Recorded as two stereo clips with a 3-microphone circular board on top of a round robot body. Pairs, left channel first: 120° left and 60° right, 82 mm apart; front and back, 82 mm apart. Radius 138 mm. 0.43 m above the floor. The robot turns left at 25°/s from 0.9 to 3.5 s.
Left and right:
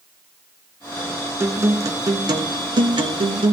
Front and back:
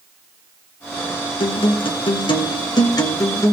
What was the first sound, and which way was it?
A guitar, straight ahead.